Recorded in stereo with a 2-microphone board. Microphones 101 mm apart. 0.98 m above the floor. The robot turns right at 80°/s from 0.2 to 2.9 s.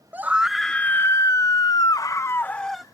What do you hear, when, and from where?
0.1 s a scream: 30° right; by 2.8 s 175° right